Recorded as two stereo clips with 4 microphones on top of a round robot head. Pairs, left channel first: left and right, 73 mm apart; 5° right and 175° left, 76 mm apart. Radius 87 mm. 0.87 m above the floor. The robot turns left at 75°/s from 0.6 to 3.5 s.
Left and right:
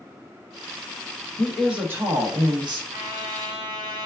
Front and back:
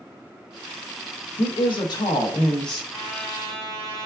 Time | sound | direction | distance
1.4 | a woman speaking | 10° left | 1.2 m
2.9 | a trumpet | 80° right | 1.8 m